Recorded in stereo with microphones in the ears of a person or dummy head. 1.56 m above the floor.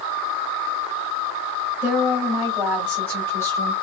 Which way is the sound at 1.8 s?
5° right (ahead or behind).